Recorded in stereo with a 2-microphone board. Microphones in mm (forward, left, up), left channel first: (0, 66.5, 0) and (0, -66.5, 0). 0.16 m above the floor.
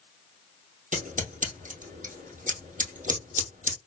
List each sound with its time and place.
0.9 s scissors: 75° right (ahead or behind), 2 m